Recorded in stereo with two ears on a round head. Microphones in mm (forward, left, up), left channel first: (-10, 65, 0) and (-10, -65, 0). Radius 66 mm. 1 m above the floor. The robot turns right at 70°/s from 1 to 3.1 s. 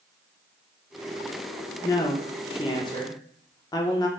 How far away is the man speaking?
About 0.6 m.